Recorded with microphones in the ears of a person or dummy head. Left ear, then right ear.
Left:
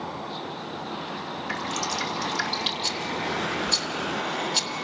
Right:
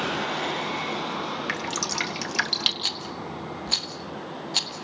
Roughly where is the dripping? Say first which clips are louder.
Left 3 dB; right.